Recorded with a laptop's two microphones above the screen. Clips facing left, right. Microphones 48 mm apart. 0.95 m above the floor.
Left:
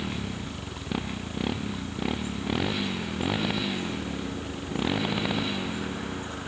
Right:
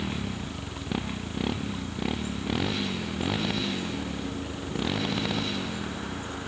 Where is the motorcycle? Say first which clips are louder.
Right 1 dB; centre (ahead or behind); by 6.5 s 10° left (ahead or behind).